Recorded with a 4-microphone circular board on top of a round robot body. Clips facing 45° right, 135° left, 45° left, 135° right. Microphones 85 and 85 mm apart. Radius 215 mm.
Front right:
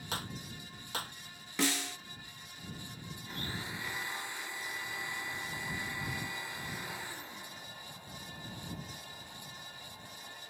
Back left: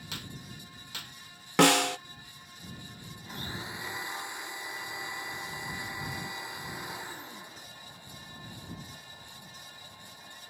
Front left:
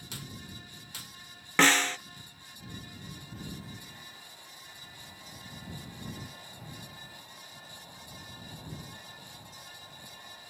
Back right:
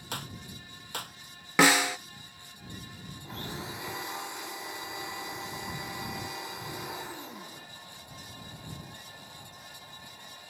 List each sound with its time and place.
0.1 s a clap: 100° right
1.6 s a snare drum: 145° left
3.2 s a blender: 150° right